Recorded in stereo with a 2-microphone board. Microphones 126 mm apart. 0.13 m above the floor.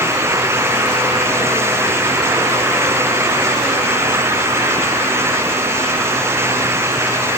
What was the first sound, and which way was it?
Only background noise.